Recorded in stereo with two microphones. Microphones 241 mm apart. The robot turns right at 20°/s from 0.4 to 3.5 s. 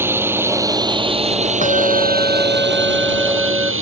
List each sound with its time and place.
0.0 s a drone: 170° right; by 3.8 s 105° right
1.6 s a bell: 145° left; by 3.7 s 175° right